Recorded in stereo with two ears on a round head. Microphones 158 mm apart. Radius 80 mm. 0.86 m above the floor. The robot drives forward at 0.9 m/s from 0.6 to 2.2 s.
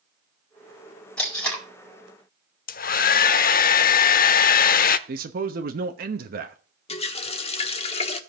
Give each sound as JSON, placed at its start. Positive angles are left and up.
{"t": 1.2, "sound": "tape being pulled", "side_deg": 5, "distance_m": 4.5}
{"t": 2.7, "sound": "a hair dryer", "side_deg": 55, "distance_m": 0.7}
{"t": 5.1, "sound": "a man speaking", "side_deg": -55, "distance_m": 1.1}
{"t": 6.9, "sound": "a running tap", "side_deg": 35, "distance_m": 1.3}